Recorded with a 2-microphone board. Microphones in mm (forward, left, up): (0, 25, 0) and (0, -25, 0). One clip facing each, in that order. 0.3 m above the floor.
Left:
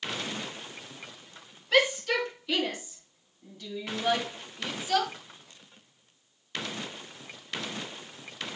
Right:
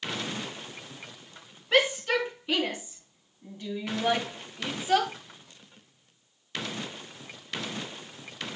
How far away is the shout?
About 4.5 m.